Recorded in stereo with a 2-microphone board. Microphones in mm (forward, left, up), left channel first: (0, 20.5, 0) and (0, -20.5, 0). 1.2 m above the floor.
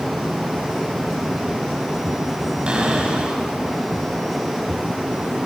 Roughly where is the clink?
No clink in this recording.